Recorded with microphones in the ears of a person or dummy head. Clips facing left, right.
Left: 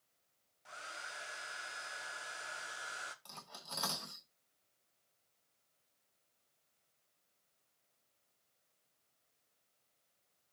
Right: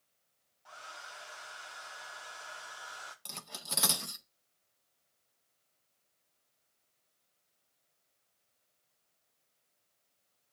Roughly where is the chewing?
I don't hear chewing.